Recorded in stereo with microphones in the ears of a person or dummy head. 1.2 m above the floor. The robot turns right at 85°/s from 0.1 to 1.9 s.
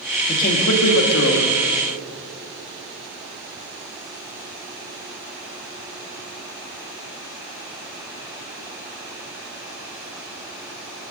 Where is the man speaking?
35° left, 2 m; by 1.6 s 145° left, 2 m.